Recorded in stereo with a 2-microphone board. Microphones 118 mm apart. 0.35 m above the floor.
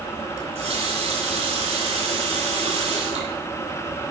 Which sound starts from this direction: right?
A running tap, at 0.4 s.